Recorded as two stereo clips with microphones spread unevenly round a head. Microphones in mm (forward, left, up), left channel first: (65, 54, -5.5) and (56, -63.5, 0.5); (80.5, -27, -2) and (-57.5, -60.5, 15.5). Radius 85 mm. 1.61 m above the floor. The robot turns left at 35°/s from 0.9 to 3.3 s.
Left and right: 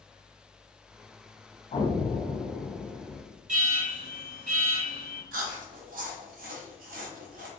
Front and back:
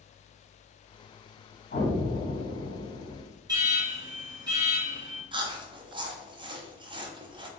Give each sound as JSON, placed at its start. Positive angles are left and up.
{"t": 1.7, "sound": "an explosion", "azimuth_deg": 45, "distance_m": 1.8}
{"t": 3.5, "sound": "an alarm", "azimuth_deg": -105, "distance_m": 2.0}
{"t": 5.3, "sound": "chewing", "azimuth_deg": -110, "distance_m": 0.8}